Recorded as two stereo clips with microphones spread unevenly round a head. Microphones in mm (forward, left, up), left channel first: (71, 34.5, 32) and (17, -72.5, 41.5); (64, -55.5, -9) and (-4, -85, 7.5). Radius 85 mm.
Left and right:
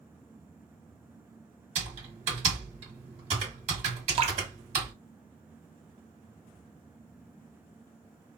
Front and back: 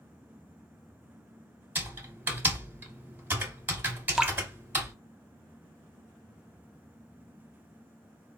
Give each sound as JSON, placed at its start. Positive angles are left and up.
{"t": 1.8, "sound": "typing on a keyboard", "azimuth_deg": -110, "distance_m": 1.7}
{"t": 4.2, "sound": "dripping", "azimuth_deg": -75, "distance_m": 0.7}